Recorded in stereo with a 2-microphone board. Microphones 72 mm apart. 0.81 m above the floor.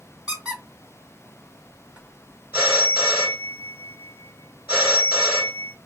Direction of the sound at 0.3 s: 15° right (ahead or behind).